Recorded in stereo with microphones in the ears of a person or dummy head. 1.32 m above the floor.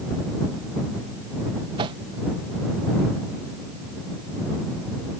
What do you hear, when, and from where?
1.8 s a whoosh: 20° right (ahead or behind)